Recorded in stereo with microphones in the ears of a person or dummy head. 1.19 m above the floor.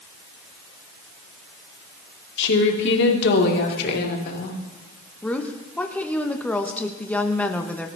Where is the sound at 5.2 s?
10° left (ahead or behind), 1.6 m.